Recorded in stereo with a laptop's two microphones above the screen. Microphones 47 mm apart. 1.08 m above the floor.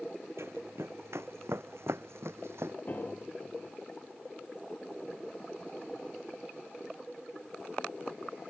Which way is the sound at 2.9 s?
35° left (ahead or behind).